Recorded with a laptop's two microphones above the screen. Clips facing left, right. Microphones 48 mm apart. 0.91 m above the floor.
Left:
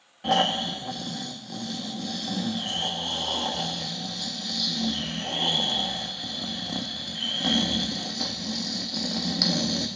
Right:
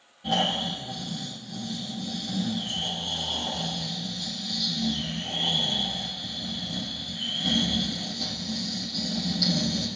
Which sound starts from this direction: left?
Snoring, at 0.2 s.